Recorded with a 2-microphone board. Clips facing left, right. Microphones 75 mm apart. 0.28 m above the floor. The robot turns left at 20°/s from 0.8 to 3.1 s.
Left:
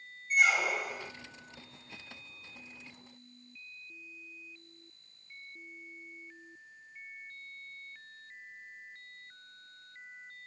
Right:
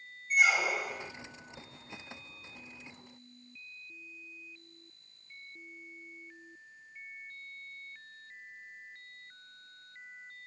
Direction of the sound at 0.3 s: Centre (ahead or behind).